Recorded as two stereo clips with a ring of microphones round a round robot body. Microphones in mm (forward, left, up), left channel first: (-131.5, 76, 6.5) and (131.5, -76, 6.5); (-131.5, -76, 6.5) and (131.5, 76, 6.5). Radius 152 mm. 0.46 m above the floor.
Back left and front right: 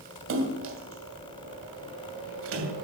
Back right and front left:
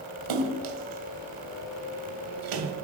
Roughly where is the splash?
Ahead.